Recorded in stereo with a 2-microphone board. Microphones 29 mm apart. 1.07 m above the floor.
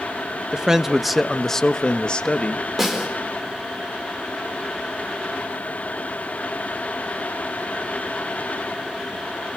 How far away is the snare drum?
About 4.5 m.